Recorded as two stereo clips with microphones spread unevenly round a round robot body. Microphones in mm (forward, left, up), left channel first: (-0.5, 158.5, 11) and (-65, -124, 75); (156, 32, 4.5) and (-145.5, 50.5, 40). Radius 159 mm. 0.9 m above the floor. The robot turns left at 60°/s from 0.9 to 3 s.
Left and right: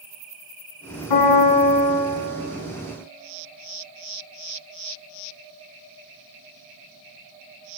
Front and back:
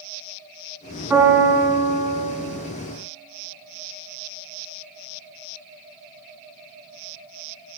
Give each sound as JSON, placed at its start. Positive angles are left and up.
{"t": 1.1, "sound": "a piano", "azimuth_deg": 95, "distance_m": 1.9}